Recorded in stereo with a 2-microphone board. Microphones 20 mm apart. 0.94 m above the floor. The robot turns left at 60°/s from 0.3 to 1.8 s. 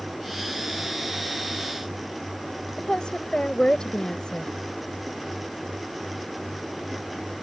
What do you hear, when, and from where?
2.8 s a woman speaking: 45° left (ahead or behind)